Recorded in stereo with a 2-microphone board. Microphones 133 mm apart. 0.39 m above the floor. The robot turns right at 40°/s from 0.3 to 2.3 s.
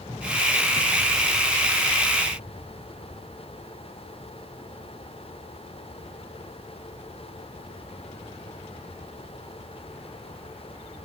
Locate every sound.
Only background noise.